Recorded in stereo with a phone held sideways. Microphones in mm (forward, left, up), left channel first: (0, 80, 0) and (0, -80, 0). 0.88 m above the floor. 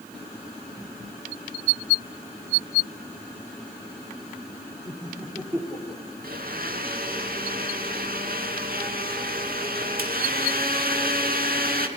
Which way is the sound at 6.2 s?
70° right (ahead or behind).